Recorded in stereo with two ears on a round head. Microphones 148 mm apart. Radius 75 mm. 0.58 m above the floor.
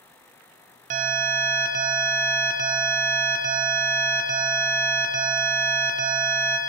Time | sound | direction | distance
0.9 | an alarm | 45° right (ahead or behind) | 0.7 m